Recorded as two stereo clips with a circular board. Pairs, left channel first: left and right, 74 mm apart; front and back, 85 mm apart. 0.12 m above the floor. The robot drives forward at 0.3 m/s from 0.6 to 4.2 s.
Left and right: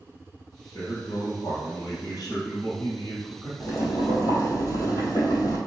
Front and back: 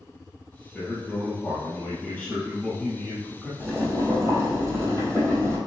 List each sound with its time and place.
0.7 s a man speaking: 80° left, 2 m; by 3.5 s 105° left, 2 m
3.6 s boiling: 125° left, 1.9 m; by 5.6 s 130° left, 2.0 m